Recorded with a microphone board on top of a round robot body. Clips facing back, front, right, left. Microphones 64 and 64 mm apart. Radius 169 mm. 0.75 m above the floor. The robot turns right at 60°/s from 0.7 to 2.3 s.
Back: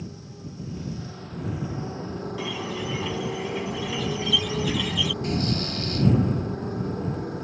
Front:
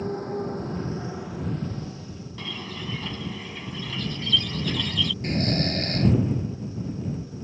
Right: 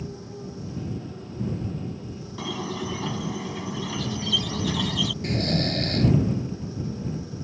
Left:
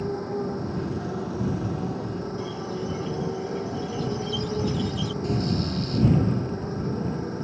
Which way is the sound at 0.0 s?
45° left.